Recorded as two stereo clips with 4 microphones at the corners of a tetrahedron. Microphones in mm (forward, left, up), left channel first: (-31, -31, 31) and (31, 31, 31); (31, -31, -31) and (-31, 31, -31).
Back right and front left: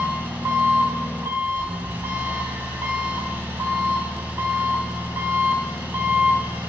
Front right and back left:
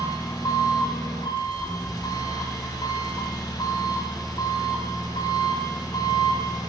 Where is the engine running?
20° right, 1.5 m.